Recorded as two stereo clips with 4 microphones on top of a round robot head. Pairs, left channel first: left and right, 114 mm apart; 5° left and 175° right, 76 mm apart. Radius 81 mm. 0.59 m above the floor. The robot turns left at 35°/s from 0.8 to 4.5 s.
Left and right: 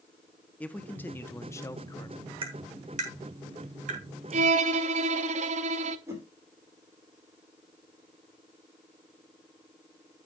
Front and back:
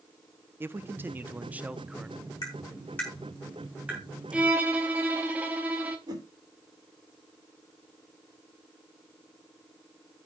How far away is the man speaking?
About 0.8 m.